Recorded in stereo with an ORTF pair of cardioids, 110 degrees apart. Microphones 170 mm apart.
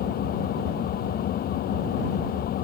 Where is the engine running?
65° left.